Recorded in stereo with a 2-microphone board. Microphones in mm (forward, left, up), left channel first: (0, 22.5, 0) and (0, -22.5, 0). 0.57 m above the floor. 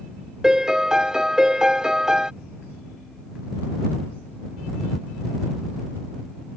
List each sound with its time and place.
0.4 s a piano: 15° right (ahead or behind)